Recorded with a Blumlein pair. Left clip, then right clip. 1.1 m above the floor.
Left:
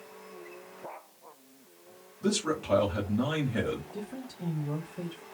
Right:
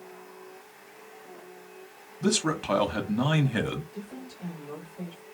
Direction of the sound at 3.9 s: 20° left.